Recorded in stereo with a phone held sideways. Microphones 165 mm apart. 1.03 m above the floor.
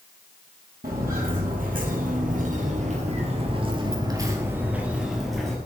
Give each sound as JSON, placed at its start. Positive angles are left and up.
{"t": 0.8, "sound": "footsteps", "side_deg": -60, "distance_m": 2.0}